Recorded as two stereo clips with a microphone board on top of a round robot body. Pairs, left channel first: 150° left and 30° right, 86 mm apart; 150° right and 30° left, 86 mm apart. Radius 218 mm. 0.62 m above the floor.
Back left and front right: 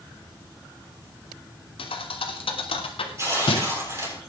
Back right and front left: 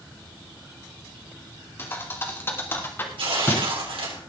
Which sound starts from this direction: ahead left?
Tearing paper, at 3.2 s.